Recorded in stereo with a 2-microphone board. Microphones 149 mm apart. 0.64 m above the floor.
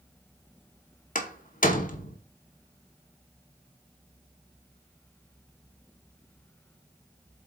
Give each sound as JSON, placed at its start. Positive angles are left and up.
{"t": 1.1, "sound": "a door slam", "side_deg": 65, "distance_m": 1.1}